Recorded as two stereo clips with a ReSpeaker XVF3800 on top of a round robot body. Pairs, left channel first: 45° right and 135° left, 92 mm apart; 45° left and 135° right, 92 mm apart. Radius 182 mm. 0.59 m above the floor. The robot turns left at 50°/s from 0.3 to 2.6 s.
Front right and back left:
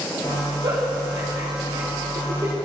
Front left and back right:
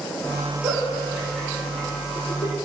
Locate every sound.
0.6 s a giggle: 165° left, 5 m; by 2.5 s 70° left, 5 m